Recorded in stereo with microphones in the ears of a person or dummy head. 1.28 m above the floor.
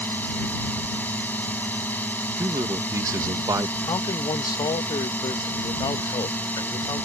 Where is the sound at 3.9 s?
25° left (ahead or behind).